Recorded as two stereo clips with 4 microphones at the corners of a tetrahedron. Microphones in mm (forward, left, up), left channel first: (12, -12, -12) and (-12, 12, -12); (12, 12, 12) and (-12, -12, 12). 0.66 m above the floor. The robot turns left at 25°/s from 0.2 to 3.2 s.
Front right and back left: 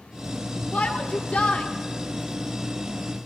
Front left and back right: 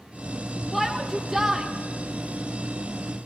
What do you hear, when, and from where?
0.7 s a shout: 55° right, 0.9 m; by 1.7 s 80° right, 0.9 m